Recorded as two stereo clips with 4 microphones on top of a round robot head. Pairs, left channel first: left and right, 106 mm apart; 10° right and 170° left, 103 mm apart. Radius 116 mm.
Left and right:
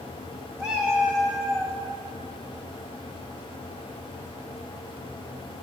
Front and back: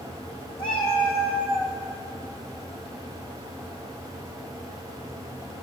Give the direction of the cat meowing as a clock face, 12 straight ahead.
1 o'clock.